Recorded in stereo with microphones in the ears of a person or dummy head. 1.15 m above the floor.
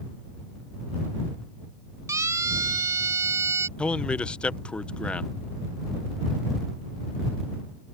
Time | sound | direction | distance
2.1 | a siren | 15° right (ahead or behind) | ?
3.8 | a man speaking | 5° left (ahead or behind) | ?